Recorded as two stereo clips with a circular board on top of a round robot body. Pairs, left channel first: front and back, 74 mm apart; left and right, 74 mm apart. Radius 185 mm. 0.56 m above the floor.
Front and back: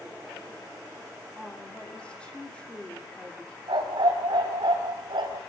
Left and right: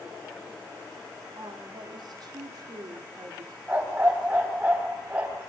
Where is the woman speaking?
75° right, 2.5 m.